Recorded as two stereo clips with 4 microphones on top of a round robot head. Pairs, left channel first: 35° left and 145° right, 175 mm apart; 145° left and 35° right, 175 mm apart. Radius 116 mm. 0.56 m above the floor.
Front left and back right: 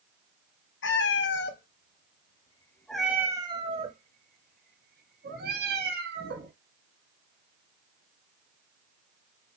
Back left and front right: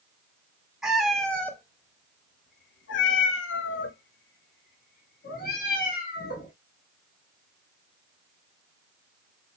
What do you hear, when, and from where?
0.8 s a cat meowing: 50° left, 1.2 m; by 6.5 s 175° right, 2 m